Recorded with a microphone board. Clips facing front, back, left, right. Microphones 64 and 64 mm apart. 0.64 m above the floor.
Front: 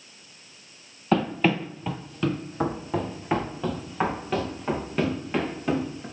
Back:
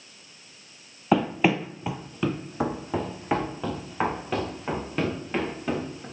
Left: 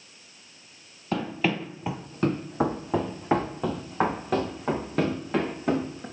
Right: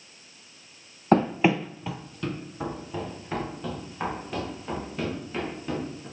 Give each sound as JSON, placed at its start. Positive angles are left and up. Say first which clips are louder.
{"t": 1.1, "sound": "running footsteps", "louder": "back 1 dB, right 6 dB", "azimuth_deg": -105, "distance_m": 0.8}